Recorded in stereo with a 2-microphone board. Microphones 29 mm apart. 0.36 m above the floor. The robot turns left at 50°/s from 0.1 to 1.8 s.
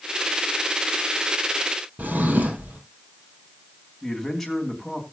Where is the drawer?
75° right (ahead or behind), 2.5 m.